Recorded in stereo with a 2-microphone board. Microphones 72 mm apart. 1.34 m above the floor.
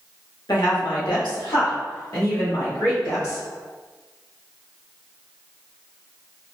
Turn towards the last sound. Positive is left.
turn(degrees=85)